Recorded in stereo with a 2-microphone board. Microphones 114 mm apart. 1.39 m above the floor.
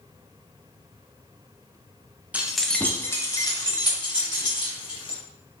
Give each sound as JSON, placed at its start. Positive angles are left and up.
{"t": 2.3, "sound": "keys jangling", "side_deg": -10, "distance_m": 0.5}